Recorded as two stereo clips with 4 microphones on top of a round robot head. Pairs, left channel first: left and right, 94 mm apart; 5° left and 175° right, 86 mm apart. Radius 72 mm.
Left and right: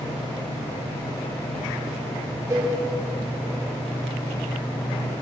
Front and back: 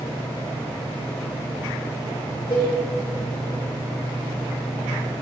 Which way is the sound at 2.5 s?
35° right.